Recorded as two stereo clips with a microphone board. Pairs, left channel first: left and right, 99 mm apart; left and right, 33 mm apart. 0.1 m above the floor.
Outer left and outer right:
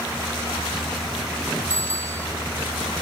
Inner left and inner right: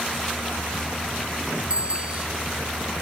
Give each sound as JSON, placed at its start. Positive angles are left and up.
{"t": 1.7, "sound": "a bicycle bell", "side_deg": -30}